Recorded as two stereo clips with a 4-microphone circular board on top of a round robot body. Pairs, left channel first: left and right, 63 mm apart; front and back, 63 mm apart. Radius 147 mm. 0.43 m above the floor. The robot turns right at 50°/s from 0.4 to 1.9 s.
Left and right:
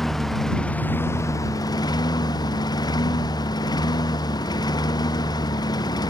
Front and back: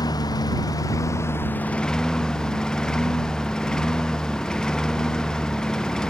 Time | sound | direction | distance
0.0 | a lawn mower | 5° left | ?